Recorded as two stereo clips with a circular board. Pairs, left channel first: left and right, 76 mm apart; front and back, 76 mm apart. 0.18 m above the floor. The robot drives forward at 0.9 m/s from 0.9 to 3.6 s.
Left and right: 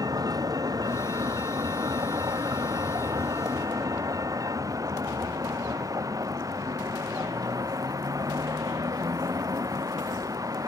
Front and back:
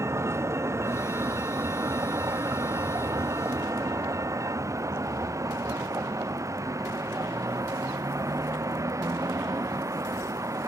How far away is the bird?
I don't hear a bird.